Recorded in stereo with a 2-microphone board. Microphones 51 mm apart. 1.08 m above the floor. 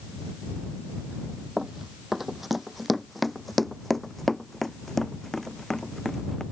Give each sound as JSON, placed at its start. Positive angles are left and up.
{"t": 1.6, "sound": "running footsteps", "side_deg": -10}